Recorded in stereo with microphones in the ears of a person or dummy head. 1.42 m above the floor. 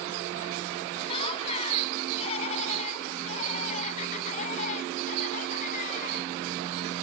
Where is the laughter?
30° left (ahead or behind); by 6.3 s 45° left (ahead or behind).